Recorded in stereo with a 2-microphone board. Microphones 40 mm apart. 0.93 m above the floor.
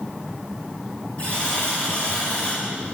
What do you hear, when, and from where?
1.2 s a buzzer: 30° left (ahead or behind), 5 m